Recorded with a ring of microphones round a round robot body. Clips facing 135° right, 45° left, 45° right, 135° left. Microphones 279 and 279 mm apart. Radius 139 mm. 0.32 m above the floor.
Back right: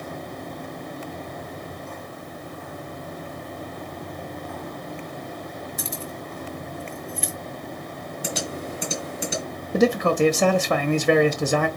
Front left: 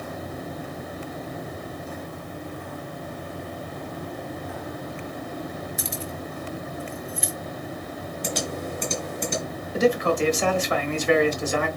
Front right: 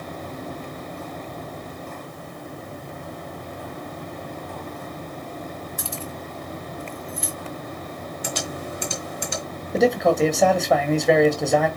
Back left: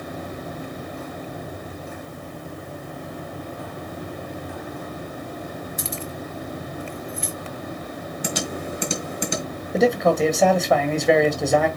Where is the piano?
No piano in this recording.